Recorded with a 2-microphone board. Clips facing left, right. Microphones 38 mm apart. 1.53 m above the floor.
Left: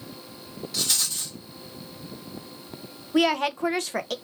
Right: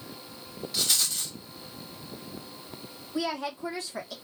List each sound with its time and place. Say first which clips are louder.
0.7 s a rattle: even; centre (ahead or behind), 3 m
3.1 s a woman speaking: left 9 dB; 65° left (ahead or behind), 0.9 m